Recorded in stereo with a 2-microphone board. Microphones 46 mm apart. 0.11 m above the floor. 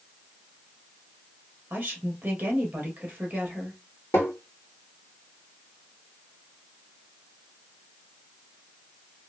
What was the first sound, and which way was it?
A woman speaking, 30° right (ahead or behind).